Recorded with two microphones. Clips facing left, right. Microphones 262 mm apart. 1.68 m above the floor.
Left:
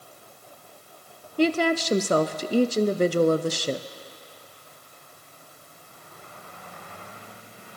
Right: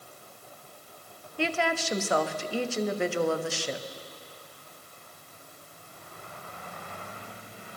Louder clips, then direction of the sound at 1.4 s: Left 8 dB; 45° left (ahead or behind).